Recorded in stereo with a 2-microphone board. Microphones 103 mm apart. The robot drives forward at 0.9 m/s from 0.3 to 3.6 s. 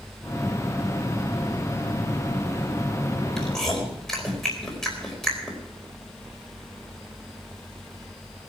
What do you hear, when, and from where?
3.4 s chewing: 5° left (ahead or behind), 4 m